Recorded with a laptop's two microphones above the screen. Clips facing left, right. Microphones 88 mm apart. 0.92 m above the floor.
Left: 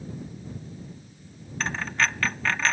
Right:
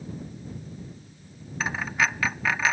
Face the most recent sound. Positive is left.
turn(degrees=-10)  # may be behind; listen again after turning